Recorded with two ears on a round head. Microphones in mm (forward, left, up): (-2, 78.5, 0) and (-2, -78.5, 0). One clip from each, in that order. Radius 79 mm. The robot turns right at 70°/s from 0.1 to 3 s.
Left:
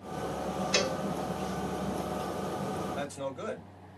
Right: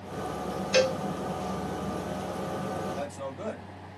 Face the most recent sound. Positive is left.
turn(degrees=50)  # may be behind; listen again after turning